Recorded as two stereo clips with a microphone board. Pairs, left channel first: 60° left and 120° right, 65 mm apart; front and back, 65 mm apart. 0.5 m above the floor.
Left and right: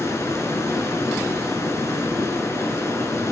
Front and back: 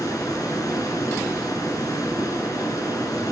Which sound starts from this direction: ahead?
Running water, at 0.0 s.